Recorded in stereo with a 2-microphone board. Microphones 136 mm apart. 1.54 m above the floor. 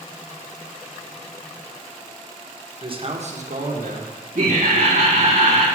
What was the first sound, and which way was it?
A man speaking, 35° right (ahead or behind).